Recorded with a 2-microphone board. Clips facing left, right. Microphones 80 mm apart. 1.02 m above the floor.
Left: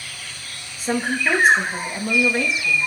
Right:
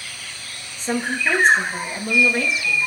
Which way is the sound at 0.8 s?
5° left (ahead or behind).